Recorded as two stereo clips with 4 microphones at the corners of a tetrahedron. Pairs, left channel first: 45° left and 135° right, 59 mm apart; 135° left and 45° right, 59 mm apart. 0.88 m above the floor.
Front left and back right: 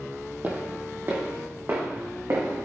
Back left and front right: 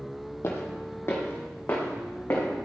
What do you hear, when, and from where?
0.4 s footsteps: 170° left, 1.8 m; by 2.4 s 175° right, 4 m